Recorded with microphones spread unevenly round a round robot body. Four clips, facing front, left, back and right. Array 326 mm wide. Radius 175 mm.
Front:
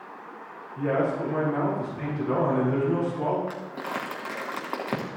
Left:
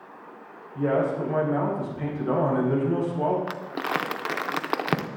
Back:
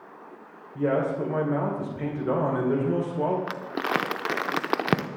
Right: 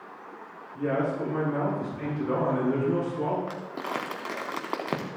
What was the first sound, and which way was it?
A man speaking, 175° left.